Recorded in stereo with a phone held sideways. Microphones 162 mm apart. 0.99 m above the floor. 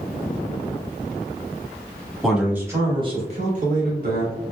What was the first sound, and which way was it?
A man speaking, centre (ahead or behind).